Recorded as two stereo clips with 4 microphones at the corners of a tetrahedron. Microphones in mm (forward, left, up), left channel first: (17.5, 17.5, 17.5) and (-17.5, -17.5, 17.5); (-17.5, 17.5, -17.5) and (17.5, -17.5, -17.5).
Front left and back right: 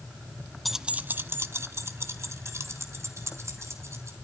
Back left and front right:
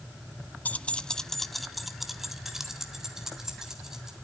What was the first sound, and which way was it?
Keys jangling, 130° left.